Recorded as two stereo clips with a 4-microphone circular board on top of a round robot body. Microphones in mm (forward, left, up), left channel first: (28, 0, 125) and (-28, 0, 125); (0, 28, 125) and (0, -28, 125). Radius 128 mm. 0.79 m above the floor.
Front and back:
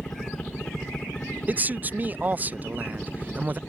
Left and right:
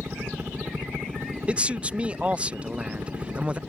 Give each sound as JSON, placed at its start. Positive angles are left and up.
{"t": 0.0, "sound": "a helicopter", "azimuth_deg": -55}
{"t": 1.5, "sound": "a man speaking", "azimuth_deg": -145}